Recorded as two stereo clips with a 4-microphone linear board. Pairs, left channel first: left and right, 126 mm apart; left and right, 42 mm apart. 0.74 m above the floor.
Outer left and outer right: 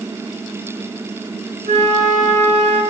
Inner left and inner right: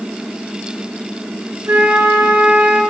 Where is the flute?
80° right, 2 m.